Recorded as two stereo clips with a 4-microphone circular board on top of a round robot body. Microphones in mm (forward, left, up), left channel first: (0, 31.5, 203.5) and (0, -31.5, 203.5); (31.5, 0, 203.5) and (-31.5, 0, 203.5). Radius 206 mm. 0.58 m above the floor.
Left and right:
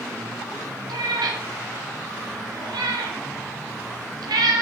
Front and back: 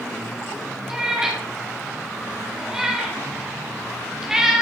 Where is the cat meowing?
100° right, 1.0 m.